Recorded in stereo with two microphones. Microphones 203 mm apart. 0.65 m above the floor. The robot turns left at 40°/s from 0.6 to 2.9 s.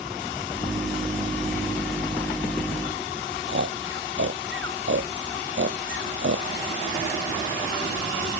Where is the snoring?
70° right (ahead or behind).